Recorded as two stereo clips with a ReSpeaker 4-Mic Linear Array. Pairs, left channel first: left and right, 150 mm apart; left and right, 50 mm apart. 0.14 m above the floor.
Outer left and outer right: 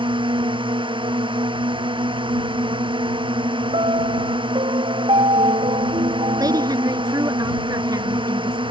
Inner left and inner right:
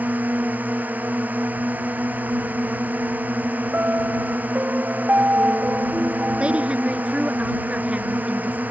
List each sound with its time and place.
0.0 s a drone: 35° right (ahead or behind)
3.7 s a piano: 40° right (ahead or behind)
6.4 s a woman speaking: 25° right (ahead or behind)